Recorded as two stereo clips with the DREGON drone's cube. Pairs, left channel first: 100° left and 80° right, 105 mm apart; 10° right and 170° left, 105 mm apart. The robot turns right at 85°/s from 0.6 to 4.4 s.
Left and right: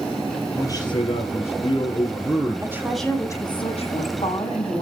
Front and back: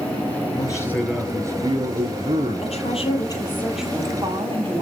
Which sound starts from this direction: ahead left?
A man speaking, at 0.6 s.